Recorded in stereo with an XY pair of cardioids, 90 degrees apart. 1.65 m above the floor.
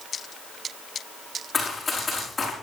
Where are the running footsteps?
30° left, 5.5 m.